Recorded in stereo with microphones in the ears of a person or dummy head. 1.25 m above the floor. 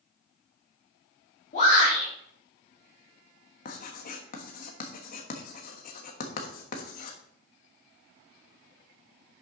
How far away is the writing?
About 1.3 m.